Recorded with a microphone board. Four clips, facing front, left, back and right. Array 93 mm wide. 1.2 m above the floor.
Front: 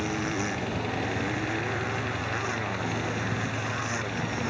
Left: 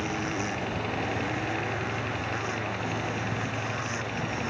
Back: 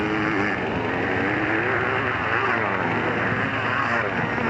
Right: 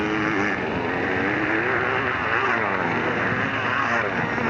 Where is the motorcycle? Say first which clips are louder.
Right 8 dB, back 7 dB; 130° right.